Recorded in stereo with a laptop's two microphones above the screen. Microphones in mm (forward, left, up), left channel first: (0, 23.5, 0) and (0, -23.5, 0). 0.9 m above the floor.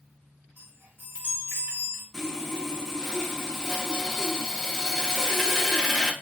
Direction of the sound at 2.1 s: 10° left (ahead or behind).